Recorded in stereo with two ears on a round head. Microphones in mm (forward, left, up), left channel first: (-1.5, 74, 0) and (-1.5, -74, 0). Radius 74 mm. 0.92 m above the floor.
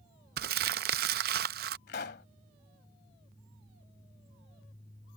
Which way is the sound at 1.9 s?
65° left (ahead or behind).